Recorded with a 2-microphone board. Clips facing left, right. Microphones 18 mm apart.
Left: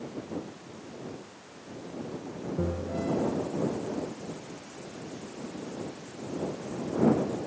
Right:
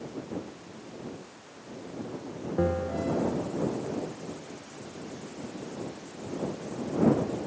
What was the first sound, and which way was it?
A bell, 75° right (ahead or behind).